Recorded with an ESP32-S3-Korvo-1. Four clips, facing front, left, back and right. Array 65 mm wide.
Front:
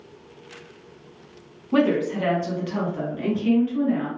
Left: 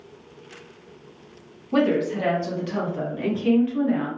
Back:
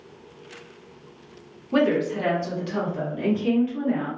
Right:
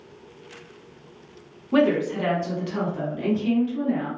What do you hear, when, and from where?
1.7 s a woman speaking: 65° right, 1.1 m; by 4.1 s 85° left, 1.2 m